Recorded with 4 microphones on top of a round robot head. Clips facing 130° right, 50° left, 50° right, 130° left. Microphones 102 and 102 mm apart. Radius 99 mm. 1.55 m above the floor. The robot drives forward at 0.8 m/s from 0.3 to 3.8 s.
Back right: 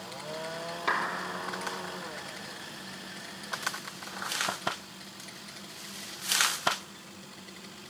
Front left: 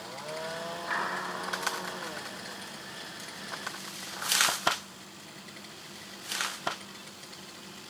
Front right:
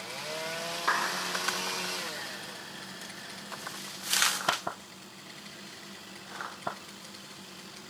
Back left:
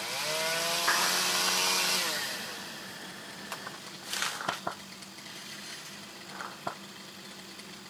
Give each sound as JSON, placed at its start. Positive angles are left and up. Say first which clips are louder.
{"t": 0.9, "sound": "a clap", "louder": "back right 4 dB, front right 2 dB", "azimuth_deg": -130, "distance_m": 4.5}